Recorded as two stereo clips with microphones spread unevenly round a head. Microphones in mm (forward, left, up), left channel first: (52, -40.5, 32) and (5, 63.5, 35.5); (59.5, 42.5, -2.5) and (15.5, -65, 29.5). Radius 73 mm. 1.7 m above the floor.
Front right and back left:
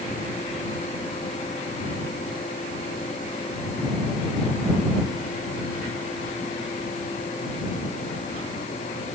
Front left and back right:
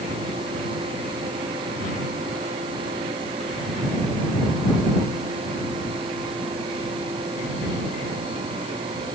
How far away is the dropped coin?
I don't hear a dropped coin.